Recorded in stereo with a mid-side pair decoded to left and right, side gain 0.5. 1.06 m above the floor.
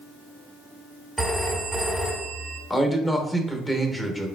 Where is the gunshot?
I don't hear a gunshot.